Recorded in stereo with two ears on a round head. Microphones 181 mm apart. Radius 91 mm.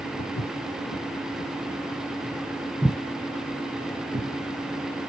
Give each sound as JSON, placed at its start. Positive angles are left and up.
{"t": 0.2, "sound": "footsteps", "side_deg": 45, "distance_m": 2.5}